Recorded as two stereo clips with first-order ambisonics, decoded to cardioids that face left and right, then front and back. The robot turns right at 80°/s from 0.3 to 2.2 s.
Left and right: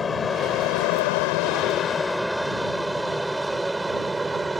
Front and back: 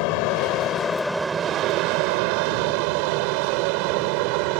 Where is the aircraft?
20° left; by 4.6 s 170° right.